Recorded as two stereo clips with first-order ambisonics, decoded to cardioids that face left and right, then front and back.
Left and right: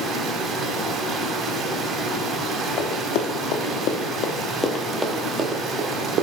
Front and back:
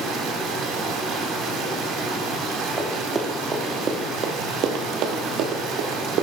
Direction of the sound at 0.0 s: 140° right.